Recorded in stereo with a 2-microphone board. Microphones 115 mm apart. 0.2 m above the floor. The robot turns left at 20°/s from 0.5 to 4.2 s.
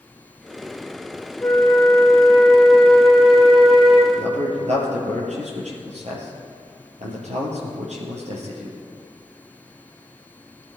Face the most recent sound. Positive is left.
turn(degrees=-75)  # may be behind; listen again after turning